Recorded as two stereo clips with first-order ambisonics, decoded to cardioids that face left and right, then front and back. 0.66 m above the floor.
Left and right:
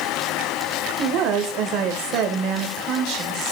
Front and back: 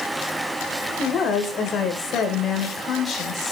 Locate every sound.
1.0 s a woman speaking: 60° right, 2 m